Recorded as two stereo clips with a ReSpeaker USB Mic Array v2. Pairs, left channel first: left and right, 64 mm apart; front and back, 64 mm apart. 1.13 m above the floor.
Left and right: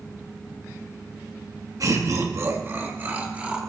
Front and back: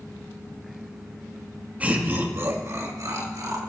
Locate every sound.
1.8 s laughter: 115° right, 2.5 m; by 3.6 s 160° right, 3 m